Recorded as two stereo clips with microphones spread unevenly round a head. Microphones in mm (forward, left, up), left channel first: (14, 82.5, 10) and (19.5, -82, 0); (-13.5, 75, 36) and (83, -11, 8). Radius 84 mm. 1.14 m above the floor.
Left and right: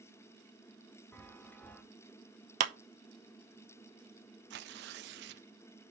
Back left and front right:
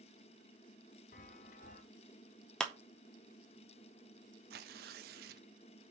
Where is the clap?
130° right, 0.6 m.